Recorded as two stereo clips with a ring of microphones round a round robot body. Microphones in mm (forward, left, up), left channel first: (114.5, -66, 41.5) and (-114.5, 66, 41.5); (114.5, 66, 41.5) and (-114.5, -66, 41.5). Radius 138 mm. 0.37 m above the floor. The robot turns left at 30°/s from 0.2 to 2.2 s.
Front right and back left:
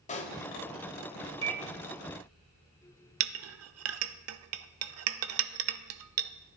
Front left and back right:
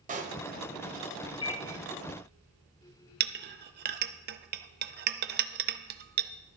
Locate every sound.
0.1 s a pop: 90° right, 1.2 m; by 0.4 s 95° right, 1.2 m
1.4 s a microwave: 95° left, 0.9 m; by 1.6 s 85° left, 0.9 m
3.2 s a clink: 165° left, 0.6 m